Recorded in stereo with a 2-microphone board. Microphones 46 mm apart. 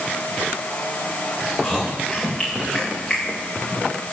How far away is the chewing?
About 9 m.